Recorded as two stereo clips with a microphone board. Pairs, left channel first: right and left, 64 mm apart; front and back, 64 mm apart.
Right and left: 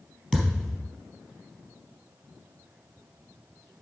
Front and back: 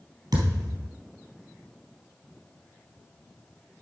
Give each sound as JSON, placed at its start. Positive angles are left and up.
{"t": 0.3, "sound": "a thud", "azimuth_deg": -170, "distance_m": 3.5}